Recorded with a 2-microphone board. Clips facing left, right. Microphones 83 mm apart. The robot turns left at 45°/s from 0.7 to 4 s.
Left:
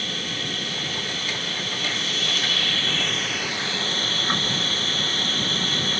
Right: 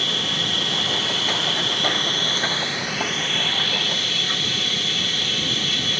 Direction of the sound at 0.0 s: 70° right.